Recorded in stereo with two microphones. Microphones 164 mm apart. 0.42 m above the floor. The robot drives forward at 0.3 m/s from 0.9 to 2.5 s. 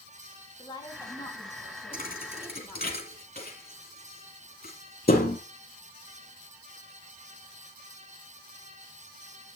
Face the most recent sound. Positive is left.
turn(degrees=65)  # may be behind; listen again after turning